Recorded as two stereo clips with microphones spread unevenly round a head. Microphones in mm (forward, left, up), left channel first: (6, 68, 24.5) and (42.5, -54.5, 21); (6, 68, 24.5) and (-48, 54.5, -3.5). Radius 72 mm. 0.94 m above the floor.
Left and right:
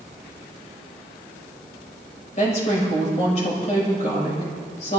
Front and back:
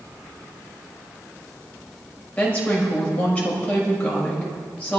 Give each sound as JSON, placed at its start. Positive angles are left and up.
{"t": 2.4, "sound": "a woman speaking", "azimuth_deg": 75, "distance_m": 6.0}